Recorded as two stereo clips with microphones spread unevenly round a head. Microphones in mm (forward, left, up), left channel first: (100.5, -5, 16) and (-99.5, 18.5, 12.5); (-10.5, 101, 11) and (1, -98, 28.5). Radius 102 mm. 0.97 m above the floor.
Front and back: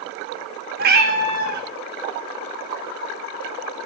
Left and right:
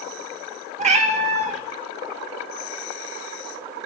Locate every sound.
0.8 s a cat meowing: 140° right, 0.5 m